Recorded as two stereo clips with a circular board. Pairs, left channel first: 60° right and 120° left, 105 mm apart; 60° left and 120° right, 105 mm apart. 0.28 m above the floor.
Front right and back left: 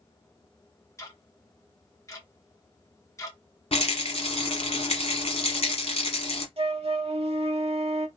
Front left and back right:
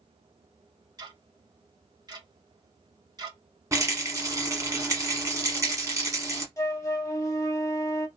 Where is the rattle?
60° right, 1.0 m.